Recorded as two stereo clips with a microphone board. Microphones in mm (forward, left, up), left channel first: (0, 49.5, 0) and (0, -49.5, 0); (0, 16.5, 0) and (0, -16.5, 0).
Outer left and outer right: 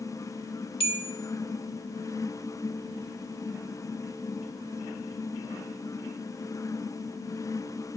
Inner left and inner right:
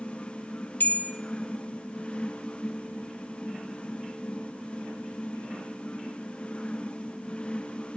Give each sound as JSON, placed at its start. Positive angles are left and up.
{"t": 0.8, "sound": "a bell", "side_deg": 65, "distance_m": 0.7}